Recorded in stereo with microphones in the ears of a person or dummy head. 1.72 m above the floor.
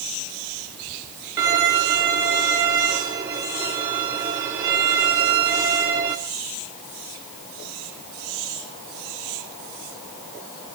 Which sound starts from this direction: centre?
A violin, at 1.4 s.